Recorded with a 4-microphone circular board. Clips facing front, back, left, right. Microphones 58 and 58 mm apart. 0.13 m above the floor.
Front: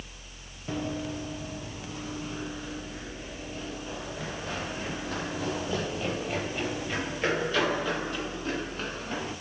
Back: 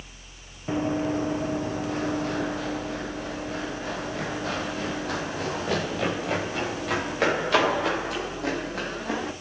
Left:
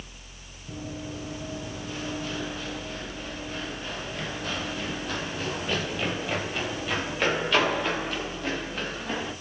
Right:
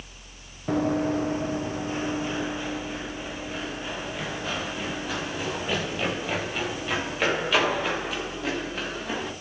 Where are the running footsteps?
115° right, 0.8 m; by 9.3 s straight behind, 8.5 m.